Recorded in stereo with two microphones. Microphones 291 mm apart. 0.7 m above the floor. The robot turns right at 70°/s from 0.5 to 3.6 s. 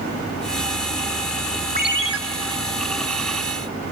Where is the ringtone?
150° right, 1.0 m; by 2.2 s 120° right, 1.0 m.